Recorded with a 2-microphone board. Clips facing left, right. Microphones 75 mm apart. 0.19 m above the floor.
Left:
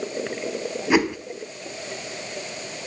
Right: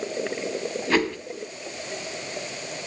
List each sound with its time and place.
0.9 s a whoosh: 15° left (ahead or behind), 1.0 m